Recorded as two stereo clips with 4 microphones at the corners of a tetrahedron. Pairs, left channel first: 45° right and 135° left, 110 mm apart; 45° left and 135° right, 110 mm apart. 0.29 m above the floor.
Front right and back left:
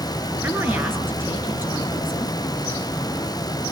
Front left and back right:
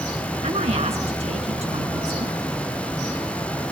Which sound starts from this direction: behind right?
A woman speaking, at 0.4 s.